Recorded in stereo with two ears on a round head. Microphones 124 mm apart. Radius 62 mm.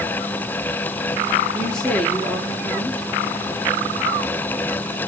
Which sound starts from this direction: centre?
A woman speaking, at 1.5 s.